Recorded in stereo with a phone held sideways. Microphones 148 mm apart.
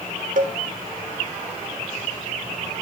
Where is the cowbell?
70° right (ahead or behind), 1.2 m.